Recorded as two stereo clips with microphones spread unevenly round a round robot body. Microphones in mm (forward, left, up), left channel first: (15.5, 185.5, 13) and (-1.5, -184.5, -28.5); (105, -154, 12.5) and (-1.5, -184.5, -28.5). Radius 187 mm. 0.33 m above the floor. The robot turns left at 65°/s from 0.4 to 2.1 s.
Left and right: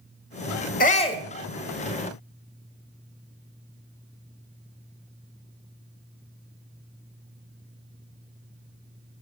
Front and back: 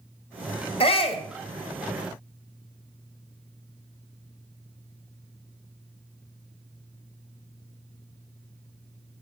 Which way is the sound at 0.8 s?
30° left.